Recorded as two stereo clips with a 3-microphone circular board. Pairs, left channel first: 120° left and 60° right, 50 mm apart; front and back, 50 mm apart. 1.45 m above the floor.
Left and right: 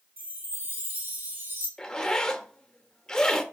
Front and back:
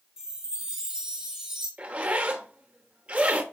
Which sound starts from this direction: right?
A chime, at 0.2 s.